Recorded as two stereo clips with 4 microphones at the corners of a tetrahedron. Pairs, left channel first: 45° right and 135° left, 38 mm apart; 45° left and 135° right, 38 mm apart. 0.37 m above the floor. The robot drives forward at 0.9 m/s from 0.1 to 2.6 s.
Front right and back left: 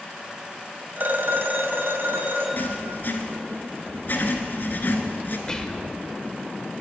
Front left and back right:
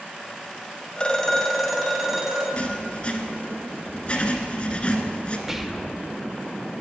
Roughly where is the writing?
Ahead.